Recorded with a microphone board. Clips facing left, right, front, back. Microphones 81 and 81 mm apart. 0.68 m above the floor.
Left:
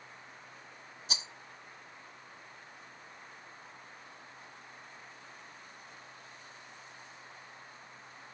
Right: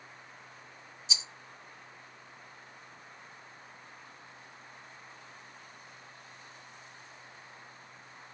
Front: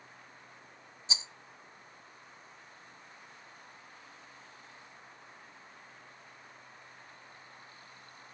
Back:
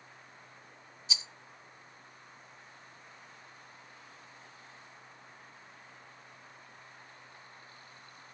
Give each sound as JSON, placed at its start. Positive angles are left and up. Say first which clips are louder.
{"t": 1.1, "sound": "a rattle", "louder": "left 1 dB, front 1 dB", "azimuth_deg": 55, "distance_m": 0.6}